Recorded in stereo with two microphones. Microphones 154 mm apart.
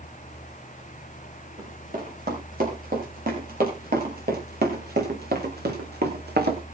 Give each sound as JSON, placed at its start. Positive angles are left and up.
{"t": 1.6, "sound": "running footsteps", "side_deg": -65, "distance_m": 9.5}